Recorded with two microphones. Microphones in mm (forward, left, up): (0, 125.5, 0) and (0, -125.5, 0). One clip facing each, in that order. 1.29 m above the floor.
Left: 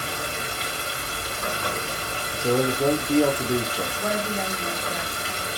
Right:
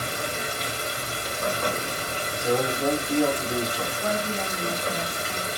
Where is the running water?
50° right (ahead or behind), 2 m.